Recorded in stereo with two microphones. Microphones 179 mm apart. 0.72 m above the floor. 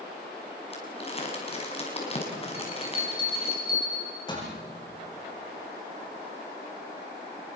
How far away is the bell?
About 8 m.